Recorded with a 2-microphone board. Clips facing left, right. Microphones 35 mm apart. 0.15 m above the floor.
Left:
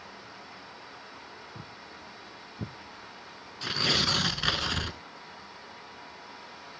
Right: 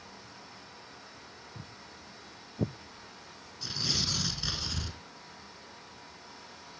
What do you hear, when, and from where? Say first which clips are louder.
1.6 s footsteps: left 4 dB; 25° left (ahead or behind), 1.4 m; by 2.8 s 55° right (ahead or behind), 0.6 m
3.6 s tearing paper: left 7 dB; 50° left (ahead or behind), 0.9 m